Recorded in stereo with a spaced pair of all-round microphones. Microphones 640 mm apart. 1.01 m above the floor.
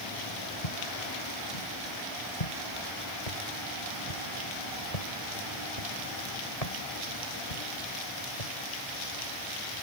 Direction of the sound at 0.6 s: 70° left (ahead or behind).